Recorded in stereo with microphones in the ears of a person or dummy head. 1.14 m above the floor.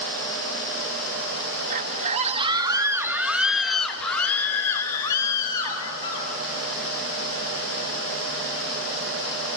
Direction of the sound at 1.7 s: 45° right (ahead or behind).